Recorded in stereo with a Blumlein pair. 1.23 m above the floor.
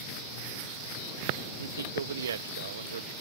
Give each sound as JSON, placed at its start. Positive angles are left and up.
{"t": 1.6, "sound": "a man speaking", "azimuth_deg": -65}